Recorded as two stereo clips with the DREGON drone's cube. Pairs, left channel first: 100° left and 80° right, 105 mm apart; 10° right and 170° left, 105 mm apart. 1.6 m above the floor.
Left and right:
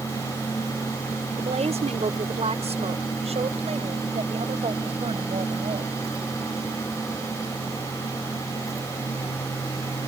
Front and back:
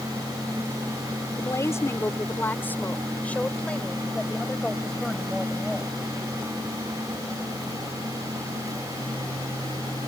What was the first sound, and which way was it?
A woman speaking, 70° right.